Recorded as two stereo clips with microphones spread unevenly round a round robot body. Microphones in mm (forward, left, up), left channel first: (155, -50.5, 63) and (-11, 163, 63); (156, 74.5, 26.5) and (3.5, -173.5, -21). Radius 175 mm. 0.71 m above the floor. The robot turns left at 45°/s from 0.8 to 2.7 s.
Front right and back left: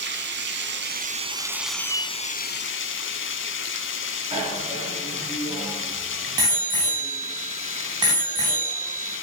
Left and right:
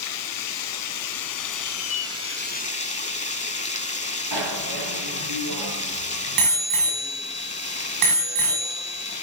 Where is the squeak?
130° left, 2.5 m; by 2.1 s 105° left, 2.5 m.